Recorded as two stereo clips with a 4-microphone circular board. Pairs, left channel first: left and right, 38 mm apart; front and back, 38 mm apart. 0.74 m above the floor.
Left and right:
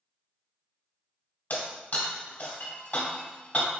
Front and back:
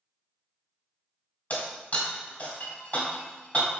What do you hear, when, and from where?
1.5 s breaking glass: 45° left, 1.6 m